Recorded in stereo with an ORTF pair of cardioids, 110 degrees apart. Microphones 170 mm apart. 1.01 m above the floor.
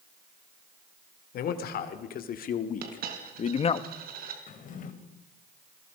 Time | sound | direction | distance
1.3 | a man speaking | 65° left | 3.5 m
2.8 | a dropped coin | 60° right | 4.5 m
4.5 | a drawer | 50° left | 3 m